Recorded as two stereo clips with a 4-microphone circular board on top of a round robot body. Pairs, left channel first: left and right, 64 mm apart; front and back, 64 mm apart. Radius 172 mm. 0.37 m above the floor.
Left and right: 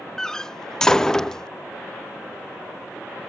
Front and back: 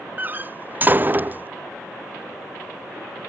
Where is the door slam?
160° left.